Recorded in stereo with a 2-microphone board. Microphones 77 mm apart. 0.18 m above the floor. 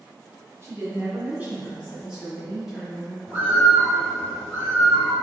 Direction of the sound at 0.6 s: 40° right (ahead or behind).